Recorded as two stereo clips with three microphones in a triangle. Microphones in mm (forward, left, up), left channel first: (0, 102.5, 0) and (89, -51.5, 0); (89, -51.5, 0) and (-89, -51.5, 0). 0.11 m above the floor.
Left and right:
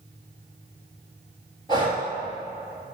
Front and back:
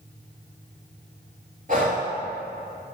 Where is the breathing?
175° left, 1.8 m.